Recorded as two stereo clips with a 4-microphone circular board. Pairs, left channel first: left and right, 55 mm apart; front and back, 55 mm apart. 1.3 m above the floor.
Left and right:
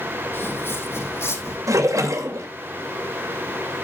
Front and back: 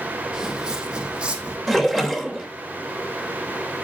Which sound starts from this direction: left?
Footsteps, at 0.3 s.